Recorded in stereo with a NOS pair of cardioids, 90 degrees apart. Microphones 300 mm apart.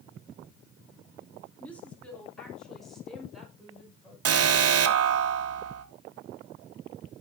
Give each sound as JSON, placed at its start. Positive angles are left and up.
{"t": 1.6, "sound": "a woman speaking", "azimuth_deg": 5, "distance_m": 3.0}
{"t": 4.2, "sound": "an alarm", "azimuth_deg": -55, "distance_m": 1.3}